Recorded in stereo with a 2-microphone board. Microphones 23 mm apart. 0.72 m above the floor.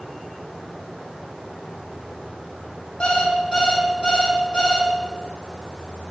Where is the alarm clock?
50° left (ahead or behind), 2.5 m.